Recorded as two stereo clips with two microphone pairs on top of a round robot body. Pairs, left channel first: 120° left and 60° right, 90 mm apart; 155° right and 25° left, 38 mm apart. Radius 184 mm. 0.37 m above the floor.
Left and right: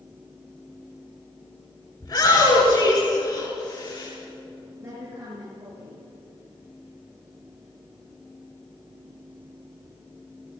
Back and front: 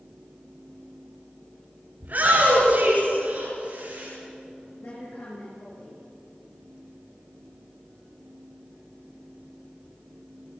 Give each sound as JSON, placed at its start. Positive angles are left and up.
{"t": 2.0, "sound": "a shout", "azimuth_deg": 75, "distance_m": 9.0}
{"t": 4.8, "sound": "a woman speaking", "azimuth_deg": -125, "distance_m": 8.5}